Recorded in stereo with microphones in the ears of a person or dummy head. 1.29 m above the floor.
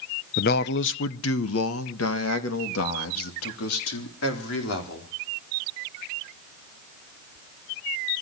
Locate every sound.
0.4 s a man speaking: 40° left (ahead or behind), 0.6 m; by 5.1 s 80° left, 4.5 m